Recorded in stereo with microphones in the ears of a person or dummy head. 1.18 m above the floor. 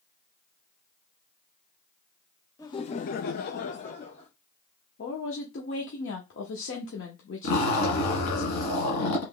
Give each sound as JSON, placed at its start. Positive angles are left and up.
{"t": 2.6, "sound": "laughter", "side_deg": 15, "distance_m": 0.6}
{"t": 5.0, "sound": "a woman speaking", "side_deg": 55, "distance_m": 0.9}
{"t": 7.4, "sound": "a zipper", "side_deg": 45, "distance_m": 1.7}